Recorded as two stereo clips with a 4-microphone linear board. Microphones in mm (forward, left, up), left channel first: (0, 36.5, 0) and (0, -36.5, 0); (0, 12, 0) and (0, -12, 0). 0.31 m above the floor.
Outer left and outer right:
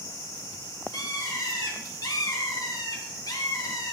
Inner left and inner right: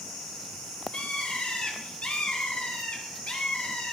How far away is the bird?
About 2.5 m.